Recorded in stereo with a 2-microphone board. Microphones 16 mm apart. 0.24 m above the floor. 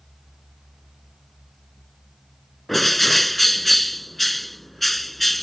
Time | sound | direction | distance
2.7 | a bird | 10° left (ahead or behind) | ?